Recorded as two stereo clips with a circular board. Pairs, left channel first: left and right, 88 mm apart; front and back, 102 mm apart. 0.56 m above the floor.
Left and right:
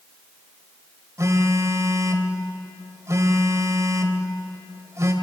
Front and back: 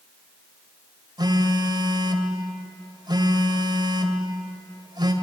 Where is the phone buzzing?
140° right, 2.5 m.